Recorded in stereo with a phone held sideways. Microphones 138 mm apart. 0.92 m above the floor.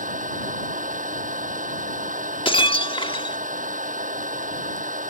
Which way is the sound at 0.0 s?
70° right (ahead or behind).